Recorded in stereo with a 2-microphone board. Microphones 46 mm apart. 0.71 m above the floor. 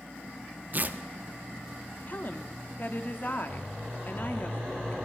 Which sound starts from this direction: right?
Tearing paper, at 0.7 s.